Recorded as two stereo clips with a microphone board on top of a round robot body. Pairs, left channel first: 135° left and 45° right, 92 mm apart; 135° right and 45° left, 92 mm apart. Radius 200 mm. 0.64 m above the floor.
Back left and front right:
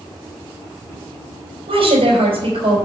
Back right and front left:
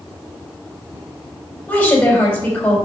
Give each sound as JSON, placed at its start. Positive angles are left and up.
{"t": 1.7, "sound": "a woman speaking", "azimuth_deg": -65, "distance_m": 4.0}